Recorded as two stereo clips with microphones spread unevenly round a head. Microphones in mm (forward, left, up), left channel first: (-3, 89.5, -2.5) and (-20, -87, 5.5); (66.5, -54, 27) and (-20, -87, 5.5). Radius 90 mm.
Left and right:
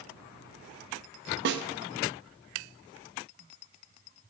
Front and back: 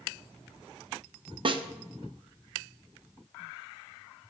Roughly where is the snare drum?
Behind right.